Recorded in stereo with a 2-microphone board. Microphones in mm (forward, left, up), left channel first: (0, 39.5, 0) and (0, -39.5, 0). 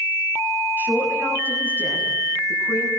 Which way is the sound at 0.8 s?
25° right (ahead or behind).